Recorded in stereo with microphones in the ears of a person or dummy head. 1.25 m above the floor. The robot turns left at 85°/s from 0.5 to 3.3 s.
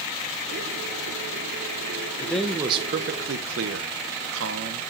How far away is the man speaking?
About 1.0 m.